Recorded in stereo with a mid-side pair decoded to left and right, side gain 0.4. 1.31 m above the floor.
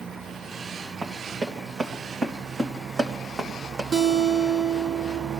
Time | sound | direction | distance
1.0 | running footsteps | 55° right | 5.5 m
3.9 | a guitar | 45° right | 1.8 m